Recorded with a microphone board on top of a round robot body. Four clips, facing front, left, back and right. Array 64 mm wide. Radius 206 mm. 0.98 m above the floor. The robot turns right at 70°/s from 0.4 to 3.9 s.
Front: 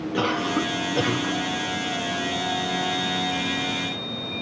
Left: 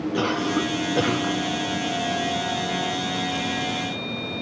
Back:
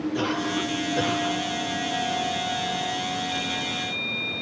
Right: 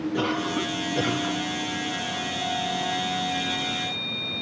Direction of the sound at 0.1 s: 30° left.